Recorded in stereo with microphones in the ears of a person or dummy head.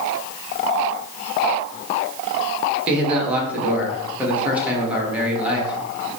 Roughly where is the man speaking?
Centre.